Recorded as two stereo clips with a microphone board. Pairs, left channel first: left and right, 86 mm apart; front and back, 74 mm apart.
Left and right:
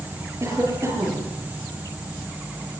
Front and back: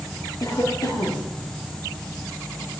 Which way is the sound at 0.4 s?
35° right.